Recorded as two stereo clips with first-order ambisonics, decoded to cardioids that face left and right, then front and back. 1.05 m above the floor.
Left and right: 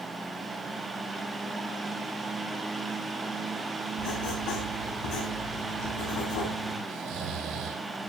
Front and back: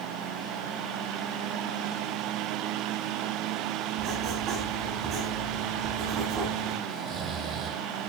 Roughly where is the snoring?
Behind right.